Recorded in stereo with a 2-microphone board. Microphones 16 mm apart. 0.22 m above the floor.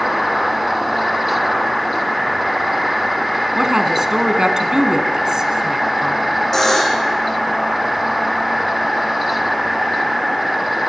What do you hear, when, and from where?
3.5 s a woman speaking: 50° right (ahead or behind), 2.5 m
6.5 s a buzzer: 35° left (ahead or behind), 3.5 m